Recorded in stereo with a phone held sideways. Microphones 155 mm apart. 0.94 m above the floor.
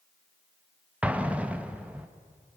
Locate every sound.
1.0 s an explosion: 10° right (ahead or behind), 1.3 m